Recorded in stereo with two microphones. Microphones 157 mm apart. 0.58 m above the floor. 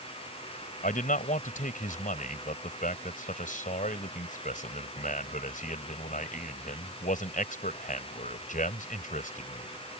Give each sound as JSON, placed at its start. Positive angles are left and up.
{"t": 0.8, "sound": "a man speaking", "side_deg": 60}